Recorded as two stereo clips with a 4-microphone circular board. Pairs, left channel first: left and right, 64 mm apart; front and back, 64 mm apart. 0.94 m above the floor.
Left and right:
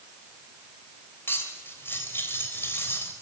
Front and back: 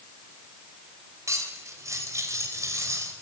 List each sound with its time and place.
1.3 s cutlery clinking: 140° left, 3 m